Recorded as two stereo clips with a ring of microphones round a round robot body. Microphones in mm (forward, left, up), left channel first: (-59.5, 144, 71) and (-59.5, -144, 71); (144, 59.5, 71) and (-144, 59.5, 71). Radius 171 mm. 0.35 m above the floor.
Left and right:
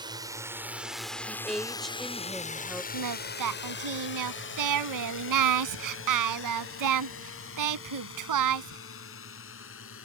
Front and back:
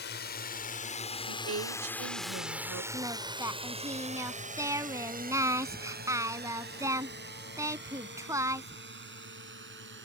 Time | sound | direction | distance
0.0 | a drone | 25° right | ?
1.3 | a woman speaking | straight behind | ?
2.9 | singing | 100° right | ?